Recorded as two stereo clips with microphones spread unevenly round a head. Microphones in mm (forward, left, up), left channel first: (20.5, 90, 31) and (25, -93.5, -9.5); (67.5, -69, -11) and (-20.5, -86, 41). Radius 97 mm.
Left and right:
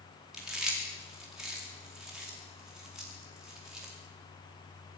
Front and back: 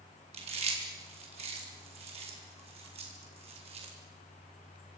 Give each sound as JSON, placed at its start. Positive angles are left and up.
{"t": 0.3, "sound": "chewing", "azimuth_deg": -175, "distance_m": 4.0}